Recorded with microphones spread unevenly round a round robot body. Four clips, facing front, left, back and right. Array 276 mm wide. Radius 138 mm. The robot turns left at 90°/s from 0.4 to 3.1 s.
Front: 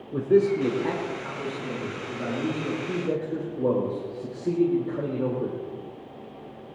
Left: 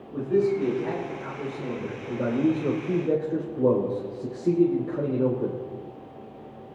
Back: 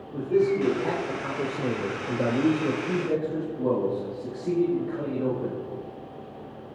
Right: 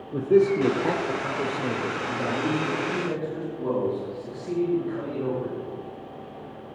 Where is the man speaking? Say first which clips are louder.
Right 4 dB, front 2 dB; 45° right, 4 m; by 5.5 s 70° left, 4 m.